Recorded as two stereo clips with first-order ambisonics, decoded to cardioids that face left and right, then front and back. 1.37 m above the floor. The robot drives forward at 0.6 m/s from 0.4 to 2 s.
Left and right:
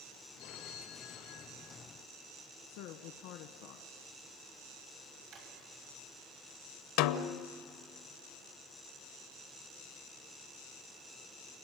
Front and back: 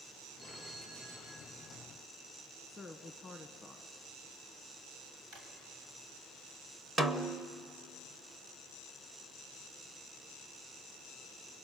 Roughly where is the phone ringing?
Left.